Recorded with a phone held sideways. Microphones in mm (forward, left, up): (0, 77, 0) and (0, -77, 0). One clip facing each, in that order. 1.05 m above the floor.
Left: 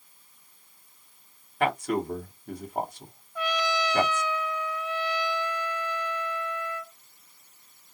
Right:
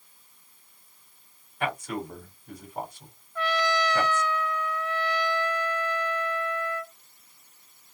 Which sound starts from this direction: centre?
A trumpet, at 3.4 s.